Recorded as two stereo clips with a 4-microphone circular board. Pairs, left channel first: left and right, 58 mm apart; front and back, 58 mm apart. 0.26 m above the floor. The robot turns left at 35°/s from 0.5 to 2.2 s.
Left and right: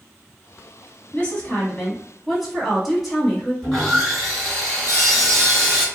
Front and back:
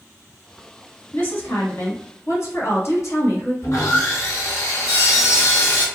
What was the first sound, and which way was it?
A woman speaking, 35° left.